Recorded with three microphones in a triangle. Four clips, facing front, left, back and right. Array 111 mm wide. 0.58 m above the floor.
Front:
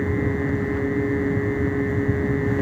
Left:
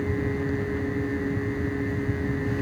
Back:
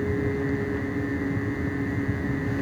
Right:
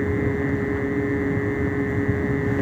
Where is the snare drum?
No snare drum in this recording.